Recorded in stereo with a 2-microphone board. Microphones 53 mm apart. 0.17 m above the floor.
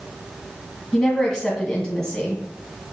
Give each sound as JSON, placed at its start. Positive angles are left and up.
{"t": 0.9, "sound": "a woman speaking", "side_deg": 15, "distance_m": 1.4}